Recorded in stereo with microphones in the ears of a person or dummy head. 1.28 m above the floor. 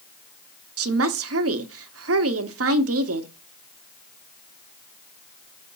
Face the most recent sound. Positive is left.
turn(degrees=-70)  # may be behind; listen again after turning